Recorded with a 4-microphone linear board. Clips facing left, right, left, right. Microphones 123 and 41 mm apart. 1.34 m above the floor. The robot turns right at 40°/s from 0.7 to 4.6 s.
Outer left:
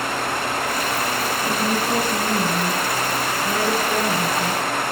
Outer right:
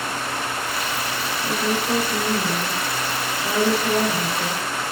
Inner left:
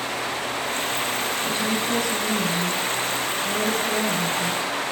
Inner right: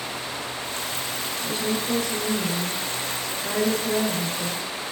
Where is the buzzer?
No buzzer in this recording.